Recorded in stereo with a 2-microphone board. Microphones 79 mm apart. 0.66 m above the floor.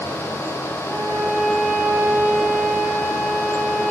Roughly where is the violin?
Right.